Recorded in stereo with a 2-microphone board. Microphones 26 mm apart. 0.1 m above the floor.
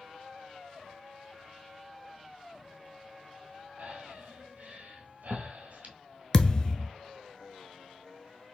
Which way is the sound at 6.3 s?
30° left (ahead or behind).